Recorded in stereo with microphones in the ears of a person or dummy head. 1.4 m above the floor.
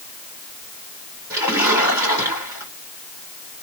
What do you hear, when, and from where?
1.3 s a splash: 15° right (ahead or behind), 3 m